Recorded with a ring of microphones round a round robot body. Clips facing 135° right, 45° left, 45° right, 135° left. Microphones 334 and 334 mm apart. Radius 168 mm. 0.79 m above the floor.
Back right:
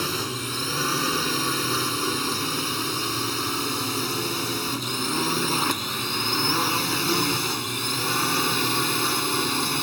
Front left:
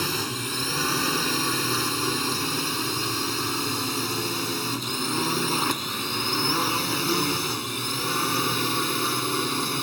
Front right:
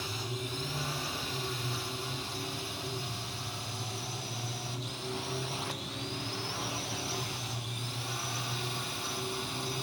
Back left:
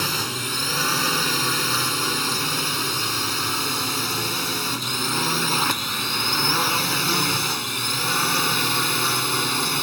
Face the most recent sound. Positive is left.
turn(degrees=140)